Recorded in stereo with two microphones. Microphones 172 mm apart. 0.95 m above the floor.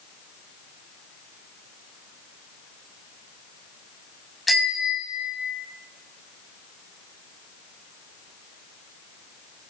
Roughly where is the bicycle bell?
Centre.